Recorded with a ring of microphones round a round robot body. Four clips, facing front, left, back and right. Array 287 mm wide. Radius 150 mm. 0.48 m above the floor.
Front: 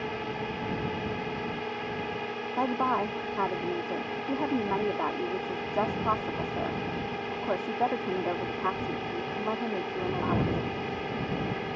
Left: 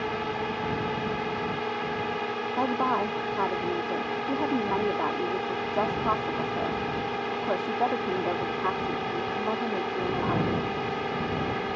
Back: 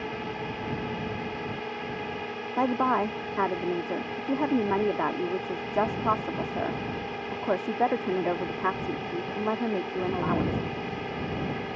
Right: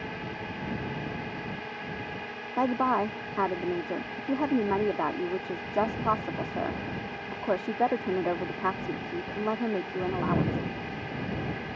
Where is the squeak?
I don't hear a squeak.